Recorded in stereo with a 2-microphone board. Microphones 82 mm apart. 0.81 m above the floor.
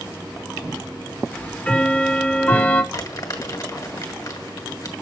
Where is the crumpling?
45° left (ahead or behind), 1.5 m.